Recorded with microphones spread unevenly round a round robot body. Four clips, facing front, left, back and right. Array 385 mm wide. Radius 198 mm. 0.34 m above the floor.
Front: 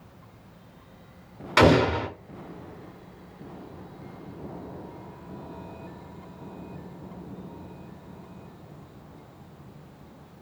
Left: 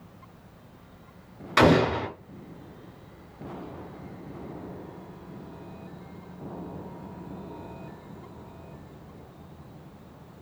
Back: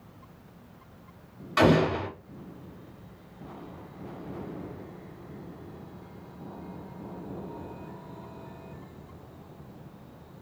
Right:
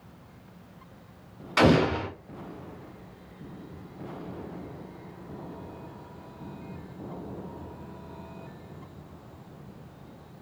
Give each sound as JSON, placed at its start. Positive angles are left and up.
{"t": 1.6, "sound": "an explosion", "azimuth_deg": 30, "distance_m": 0.7}